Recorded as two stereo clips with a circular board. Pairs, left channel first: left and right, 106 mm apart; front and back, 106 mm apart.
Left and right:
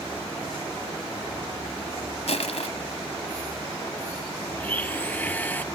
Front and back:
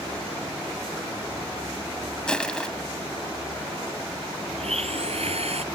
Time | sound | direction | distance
2.3 | crushing | 80° left | ?
4.6 | a blender | 165° left | ?